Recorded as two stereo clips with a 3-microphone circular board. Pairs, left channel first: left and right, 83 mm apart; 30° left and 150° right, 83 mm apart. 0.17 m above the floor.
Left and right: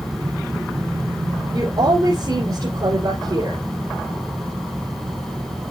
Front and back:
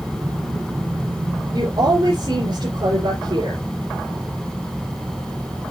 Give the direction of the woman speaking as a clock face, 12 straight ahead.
4 o'clock.